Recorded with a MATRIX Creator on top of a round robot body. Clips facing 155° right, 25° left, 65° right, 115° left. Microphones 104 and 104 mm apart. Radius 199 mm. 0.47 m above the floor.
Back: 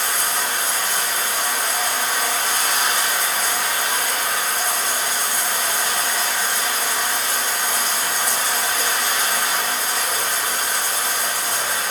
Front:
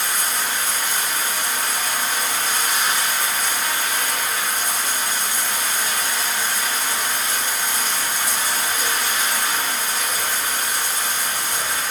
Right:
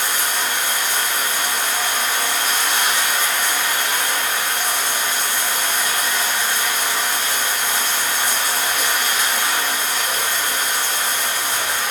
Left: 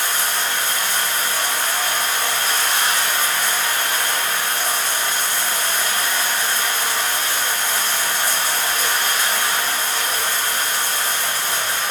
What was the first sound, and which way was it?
Running water, 135° right.